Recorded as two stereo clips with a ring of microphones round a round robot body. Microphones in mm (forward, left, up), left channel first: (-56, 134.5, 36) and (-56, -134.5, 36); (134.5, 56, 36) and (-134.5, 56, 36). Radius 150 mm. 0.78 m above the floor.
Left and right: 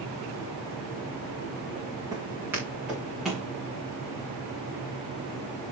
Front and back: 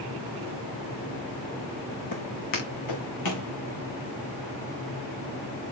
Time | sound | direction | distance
2.1 | footsteps | 10° right | 2.5 m